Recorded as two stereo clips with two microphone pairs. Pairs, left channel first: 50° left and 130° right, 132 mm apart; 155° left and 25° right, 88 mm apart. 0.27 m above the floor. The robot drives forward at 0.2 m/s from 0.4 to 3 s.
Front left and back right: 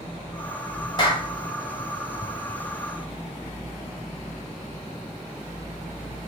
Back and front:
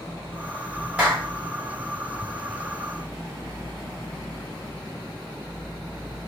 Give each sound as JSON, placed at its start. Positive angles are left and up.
{"t": 1.0, "sound": "a clap", "azimuth_deg": 40, "distance_m": 1.4}